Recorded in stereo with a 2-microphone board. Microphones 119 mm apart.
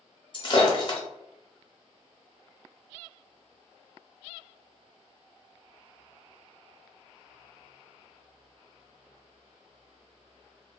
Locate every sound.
0.3 s breaking glass: 40° left (ahead or behind), 0.6 m